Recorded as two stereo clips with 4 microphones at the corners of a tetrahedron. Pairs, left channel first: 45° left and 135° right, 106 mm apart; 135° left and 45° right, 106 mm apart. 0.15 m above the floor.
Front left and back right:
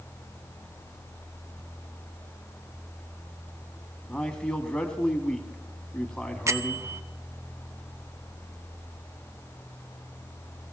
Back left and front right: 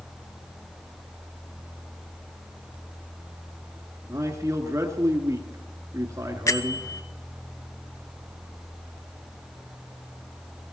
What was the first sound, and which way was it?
A man speaking, 30° right.